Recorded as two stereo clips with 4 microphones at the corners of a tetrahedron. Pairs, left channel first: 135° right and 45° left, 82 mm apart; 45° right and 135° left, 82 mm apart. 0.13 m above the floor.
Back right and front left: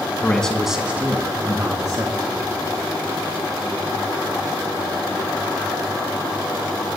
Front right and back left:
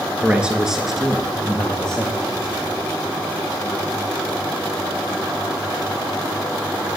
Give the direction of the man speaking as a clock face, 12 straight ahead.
6 o'clock.